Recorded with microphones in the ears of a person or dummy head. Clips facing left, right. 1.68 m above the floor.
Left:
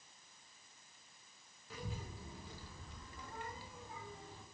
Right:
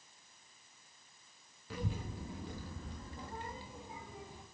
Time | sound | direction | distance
1.7 | a child speaking | 50° right (ahead or behind) | 1.4 m